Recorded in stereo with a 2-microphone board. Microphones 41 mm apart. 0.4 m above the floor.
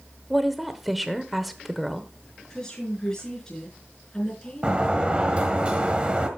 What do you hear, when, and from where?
0.3 s a woman speaking: centre (ahead or behind), 0.9 m
2.5 s a woman speaking: 15° left (ahead or behind), 4.5 m
4.6 s a sliding door: 25° right (ahead or behind), 1.3 m